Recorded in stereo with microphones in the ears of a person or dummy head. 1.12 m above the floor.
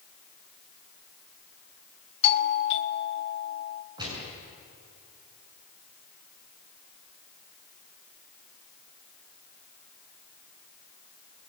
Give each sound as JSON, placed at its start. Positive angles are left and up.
{"t": 2.2, "sound": "a doorbell", "side_deg": 35, "distance_m": 1.9}
{"t": 4.0, "sound": "a gunshot", "side_deg": -25, "distance_m": 7.5}